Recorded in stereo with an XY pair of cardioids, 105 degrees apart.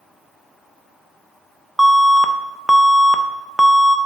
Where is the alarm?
5° right, 0.7 m.